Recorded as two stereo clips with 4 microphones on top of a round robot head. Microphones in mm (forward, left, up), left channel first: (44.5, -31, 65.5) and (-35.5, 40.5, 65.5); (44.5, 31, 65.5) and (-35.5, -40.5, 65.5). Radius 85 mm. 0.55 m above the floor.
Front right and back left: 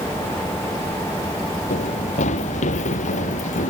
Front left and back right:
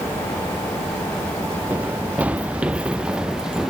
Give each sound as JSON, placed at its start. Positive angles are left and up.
{"t": 1.7, "sound": "running footsteps", "azimuth_deg": -60}